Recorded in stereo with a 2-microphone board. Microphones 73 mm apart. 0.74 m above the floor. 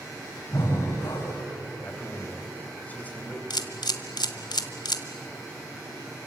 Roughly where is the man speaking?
Centre.